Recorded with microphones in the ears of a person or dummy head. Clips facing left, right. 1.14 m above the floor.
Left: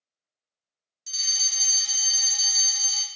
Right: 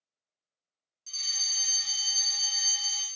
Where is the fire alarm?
20° left (ahead or behind), 1.0 m.